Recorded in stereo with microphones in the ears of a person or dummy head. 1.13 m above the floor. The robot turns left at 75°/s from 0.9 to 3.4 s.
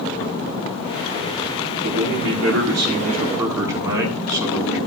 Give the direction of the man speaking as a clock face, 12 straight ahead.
2 o'clock.